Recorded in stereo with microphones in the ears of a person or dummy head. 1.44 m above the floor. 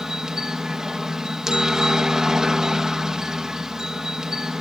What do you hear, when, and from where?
0.0 s a helicopter: centre (ahead or behind)